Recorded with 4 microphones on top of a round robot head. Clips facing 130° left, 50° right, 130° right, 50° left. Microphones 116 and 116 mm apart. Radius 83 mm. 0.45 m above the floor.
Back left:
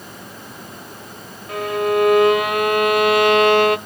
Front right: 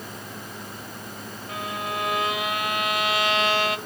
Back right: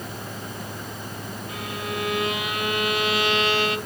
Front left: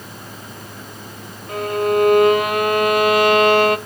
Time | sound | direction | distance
1.5 | a violin | 95° left | 0.7 m